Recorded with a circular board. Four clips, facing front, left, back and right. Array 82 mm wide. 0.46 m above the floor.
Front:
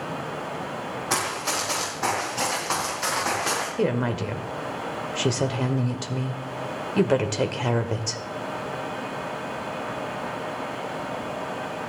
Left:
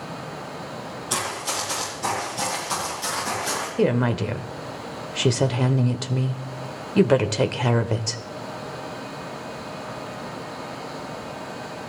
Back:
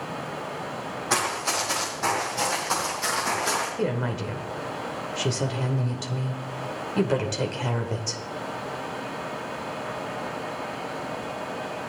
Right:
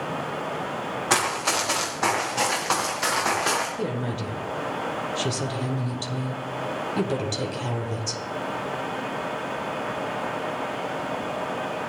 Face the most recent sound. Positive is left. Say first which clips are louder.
# left 7 dB, front 3 dB
turn(degrees=70)